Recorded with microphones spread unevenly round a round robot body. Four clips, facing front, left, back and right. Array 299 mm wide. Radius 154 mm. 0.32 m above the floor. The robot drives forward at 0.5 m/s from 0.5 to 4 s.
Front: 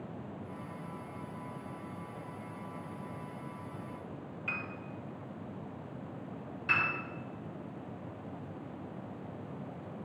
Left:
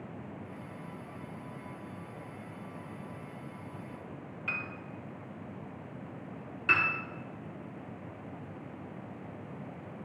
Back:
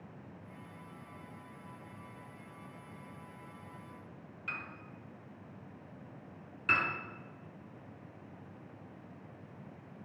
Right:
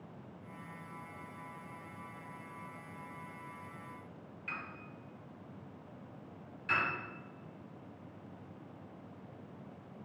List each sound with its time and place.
4.5 s a piano: 55° left, 0.9 m
6.7 s a piano: 125° left, 1.8 m